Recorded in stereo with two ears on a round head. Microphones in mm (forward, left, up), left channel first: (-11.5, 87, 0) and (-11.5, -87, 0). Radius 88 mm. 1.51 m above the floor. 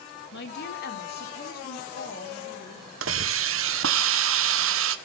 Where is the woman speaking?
65° left (ahead or behind), 2.5 m; by 2.9 s 40° left (ahead or behind), 3.5 m.